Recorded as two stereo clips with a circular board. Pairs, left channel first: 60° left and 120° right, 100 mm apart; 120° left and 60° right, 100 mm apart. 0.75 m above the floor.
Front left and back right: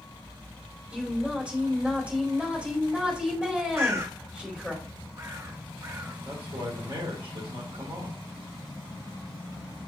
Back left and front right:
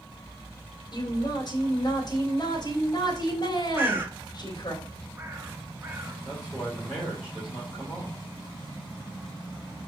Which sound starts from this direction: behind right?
A man speaking, at 6.2 s.